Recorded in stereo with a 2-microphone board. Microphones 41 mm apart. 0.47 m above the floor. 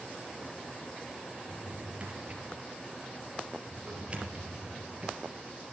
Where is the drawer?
30° right (ahead or behind), 3.5 m.